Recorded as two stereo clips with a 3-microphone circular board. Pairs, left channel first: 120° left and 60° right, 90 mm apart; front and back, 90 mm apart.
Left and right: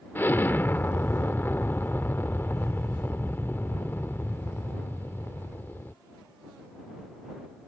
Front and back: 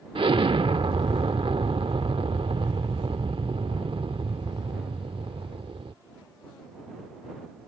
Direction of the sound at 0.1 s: 175° right.